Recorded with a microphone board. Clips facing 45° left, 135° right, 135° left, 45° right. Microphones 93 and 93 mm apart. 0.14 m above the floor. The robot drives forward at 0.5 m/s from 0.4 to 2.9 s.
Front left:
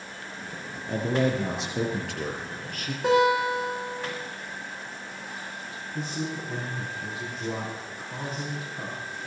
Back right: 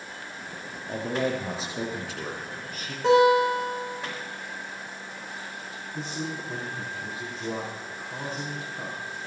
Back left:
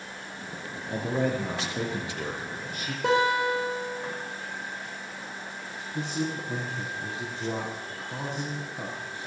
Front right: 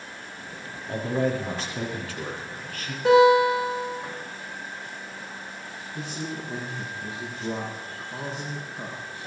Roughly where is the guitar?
Behind left.